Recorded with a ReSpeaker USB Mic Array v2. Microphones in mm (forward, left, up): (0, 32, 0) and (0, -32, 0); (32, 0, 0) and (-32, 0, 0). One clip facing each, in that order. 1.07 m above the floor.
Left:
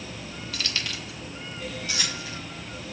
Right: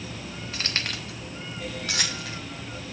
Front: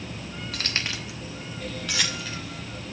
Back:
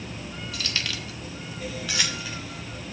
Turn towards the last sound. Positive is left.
turn(degrees=-100)